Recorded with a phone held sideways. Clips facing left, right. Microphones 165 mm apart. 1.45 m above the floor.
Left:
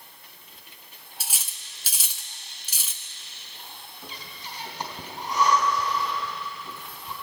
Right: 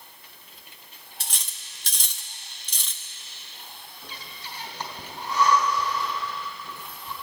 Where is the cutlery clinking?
5° left (ahead or behind), 0.8 m.